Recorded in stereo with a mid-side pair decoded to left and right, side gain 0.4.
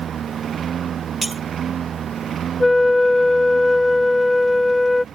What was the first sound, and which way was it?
A lawn mower, 60° right.